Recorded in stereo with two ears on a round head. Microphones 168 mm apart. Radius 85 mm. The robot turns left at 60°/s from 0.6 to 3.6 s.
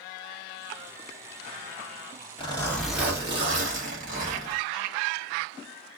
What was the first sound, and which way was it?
A zipper, 30° left.